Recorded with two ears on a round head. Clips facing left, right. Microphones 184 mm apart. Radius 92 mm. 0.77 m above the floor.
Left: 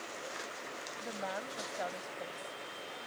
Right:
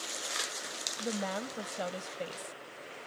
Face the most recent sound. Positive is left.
turn(degrees=-60)  # may be behind; listen again after turning